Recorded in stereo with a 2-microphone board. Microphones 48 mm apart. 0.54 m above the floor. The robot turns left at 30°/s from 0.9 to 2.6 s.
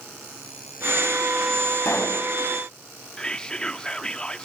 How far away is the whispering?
About 0.6 m.